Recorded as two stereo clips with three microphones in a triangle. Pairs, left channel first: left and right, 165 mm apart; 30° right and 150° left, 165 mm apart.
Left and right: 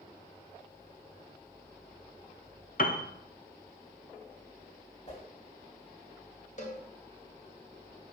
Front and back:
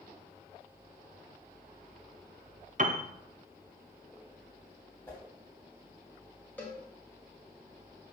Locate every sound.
2.8 s a piano: 115° left, 0.5 m
5.1 s a whoosh: 45° left, 2.5 m
6.6 s a cowbell: 50° left, 1.4 m